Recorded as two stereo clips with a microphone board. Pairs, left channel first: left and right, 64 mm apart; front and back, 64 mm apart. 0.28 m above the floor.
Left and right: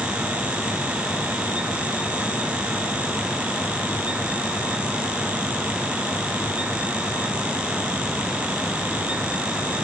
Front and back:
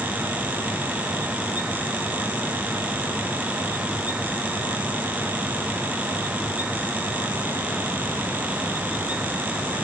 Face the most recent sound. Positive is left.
No sound to turn to.